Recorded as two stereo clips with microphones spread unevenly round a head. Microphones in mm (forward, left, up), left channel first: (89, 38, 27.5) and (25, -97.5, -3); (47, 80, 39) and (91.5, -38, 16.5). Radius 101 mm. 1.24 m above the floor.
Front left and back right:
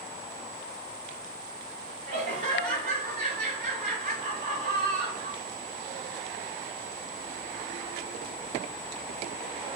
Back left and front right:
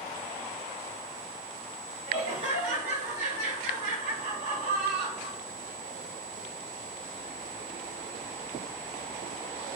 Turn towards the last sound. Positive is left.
turn(degrees=-100)